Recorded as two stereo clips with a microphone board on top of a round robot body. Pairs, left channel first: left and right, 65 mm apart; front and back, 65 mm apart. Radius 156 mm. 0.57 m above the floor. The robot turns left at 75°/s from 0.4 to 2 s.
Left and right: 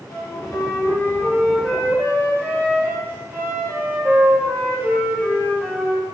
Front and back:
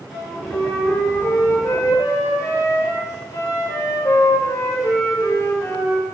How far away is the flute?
About 3.5 m.